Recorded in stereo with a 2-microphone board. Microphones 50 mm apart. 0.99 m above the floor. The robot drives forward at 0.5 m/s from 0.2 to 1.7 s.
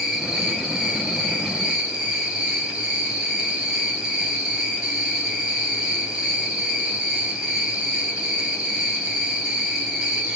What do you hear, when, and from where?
0.0 s an insect: 15° right (ahead or behind), 1.8 m; by 10.4 s 20° right (ahead or behind), 1.1 m